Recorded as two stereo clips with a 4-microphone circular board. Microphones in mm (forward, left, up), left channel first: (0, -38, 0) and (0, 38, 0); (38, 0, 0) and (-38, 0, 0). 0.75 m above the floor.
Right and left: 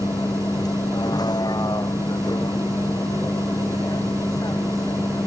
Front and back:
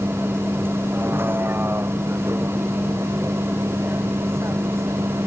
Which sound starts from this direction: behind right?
A vehicle, at 0.0 s.